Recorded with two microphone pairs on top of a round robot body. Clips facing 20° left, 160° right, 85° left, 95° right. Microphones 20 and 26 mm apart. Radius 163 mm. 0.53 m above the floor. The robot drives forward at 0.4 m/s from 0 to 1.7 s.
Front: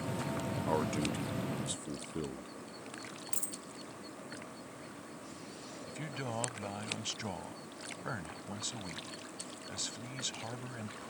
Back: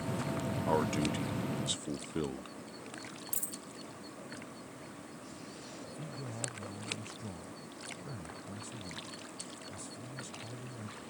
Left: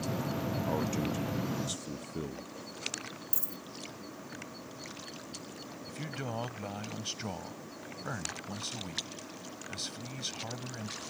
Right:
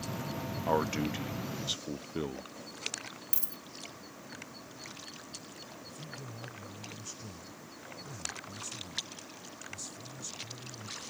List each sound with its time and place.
0.7 s a man speaking: 85° right; by 2.6 s 135° right
3.3 s a dropped coin: 55° right
5.9 s a man speaking: 45° left